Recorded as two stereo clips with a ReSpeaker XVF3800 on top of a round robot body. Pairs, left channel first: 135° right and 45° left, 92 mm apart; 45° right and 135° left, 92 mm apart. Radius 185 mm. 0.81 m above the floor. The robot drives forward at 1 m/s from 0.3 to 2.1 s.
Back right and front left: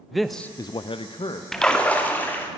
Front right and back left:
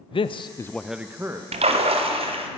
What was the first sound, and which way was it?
A man speaking, 45° right.